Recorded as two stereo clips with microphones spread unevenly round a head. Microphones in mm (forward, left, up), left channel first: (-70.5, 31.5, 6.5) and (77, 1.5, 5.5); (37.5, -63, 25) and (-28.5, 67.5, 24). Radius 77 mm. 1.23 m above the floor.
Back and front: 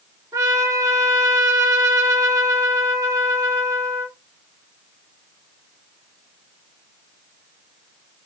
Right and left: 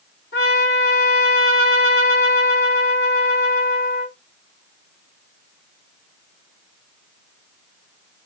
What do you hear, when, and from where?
0.3 s a trumpet: 80° right, 2.5 m